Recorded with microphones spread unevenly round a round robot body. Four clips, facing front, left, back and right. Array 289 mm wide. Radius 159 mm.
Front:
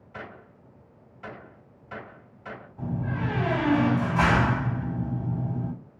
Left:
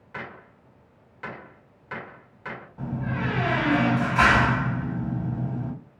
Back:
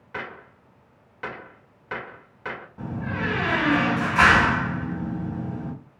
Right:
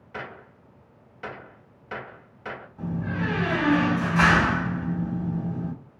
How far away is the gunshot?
About 1.7 m.